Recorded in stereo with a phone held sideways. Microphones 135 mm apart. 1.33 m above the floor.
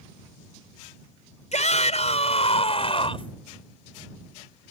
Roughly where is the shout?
Left.